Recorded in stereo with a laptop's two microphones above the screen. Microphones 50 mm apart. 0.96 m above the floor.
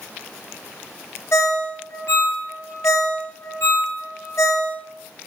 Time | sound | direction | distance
1.3 | a ringtone | 60° left (ahead or behind) | 0.8 m